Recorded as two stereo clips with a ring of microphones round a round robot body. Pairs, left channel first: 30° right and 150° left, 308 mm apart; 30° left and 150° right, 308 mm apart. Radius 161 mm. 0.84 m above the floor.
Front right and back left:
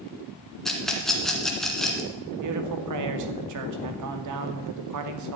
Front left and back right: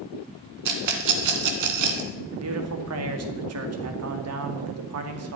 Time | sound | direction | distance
0.7 | a rattle | 120° right | 2.0 m
2.3 | a man speaking | 175° left | 2 m